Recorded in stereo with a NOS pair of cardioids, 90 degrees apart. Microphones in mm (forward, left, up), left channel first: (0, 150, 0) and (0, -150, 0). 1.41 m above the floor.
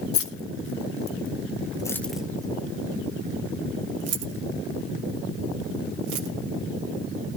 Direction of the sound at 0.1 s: 50° left.